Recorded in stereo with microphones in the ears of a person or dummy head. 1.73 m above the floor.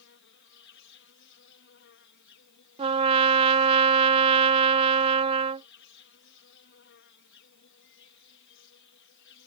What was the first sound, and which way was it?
An insect, 60° left (ahead or behind).